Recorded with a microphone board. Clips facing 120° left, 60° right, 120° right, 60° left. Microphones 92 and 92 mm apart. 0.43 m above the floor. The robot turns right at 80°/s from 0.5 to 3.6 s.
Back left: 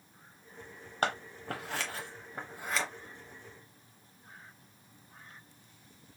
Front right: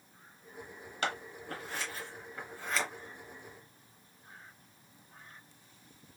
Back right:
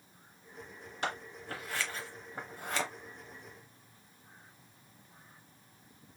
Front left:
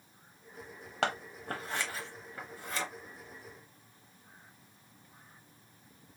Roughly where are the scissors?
Left.